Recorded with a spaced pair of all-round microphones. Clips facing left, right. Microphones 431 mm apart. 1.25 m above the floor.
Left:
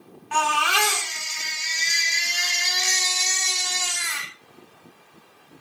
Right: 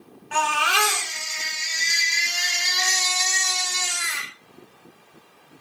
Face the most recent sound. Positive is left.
turn(degrees=15)  # may be behind; listen again after turning